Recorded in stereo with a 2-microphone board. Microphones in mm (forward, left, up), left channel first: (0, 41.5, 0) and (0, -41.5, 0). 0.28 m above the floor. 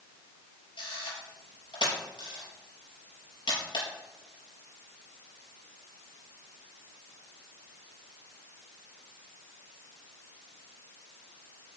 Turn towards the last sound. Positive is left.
turn(degrees=80)